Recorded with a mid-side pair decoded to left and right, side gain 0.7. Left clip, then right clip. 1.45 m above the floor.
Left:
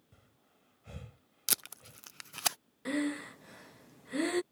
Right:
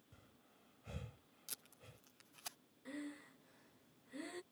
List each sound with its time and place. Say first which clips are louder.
0.1 s breathing: left 1 dB; 10° left
1.5 s tape being pulled: left 19 dB; 65° left
2.9 s breathing: left 16 dB; 60° left